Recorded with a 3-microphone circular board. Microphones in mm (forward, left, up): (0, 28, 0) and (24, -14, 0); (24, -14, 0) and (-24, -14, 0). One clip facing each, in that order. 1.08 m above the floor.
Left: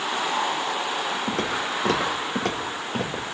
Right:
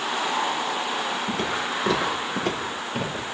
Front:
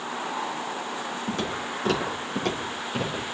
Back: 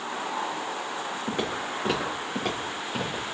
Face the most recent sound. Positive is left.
turn(degrees=90)